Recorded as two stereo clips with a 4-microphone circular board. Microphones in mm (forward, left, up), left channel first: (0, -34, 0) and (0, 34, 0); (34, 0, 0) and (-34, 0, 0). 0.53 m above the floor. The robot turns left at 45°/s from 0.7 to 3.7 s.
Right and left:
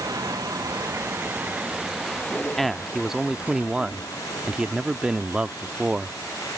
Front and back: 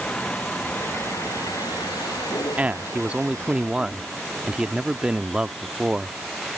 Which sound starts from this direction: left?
A vehicle, at 0.0 s.